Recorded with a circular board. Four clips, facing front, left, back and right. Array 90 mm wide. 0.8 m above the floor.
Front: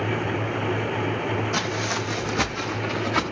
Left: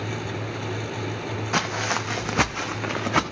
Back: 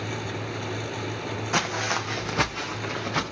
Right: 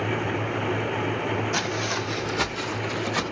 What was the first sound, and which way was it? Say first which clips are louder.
Footsteps: left 2 dB, front 1 dB; 125° left.